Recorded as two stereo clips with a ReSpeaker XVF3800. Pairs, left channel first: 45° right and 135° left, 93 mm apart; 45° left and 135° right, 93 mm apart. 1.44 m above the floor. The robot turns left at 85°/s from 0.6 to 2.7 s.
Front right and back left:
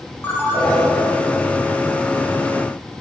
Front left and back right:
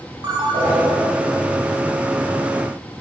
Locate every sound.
0.2 s a ringtone: 110° right, 1.2 m; by 0.8 s 130° right, 1.2 m